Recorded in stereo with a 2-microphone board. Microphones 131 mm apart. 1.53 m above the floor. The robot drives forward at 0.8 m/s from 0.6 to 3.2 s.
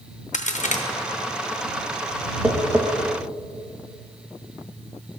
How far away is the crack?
About 0.8 m.